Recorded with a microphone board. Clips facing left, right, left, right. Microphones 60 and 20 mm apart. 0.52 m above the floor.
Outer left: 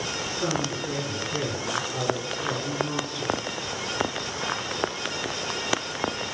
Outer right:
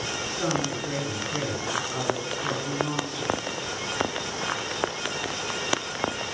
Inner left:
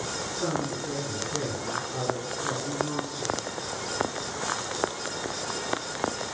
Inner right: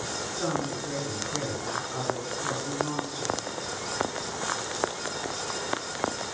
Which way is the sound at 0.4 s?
20° right (ahead or behind).